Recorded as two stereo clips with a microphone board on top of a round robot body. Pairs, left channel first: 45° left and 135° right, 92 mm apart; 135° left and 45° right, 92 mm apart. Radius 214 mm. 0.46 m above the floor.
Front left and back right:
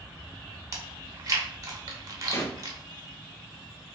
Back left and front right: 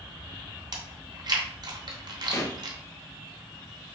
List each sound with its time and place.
0.7 s chewing: 85° right, 0.7 m
2.3 s a pop: 90° left, 0.9 m